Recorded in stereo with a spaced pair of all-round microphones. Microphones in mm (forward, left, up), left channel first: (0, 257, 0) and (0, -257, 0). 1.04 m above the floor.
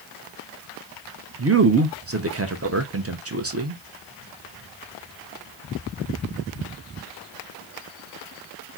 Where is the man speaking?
30° right (ahead or behind), 0.5 m.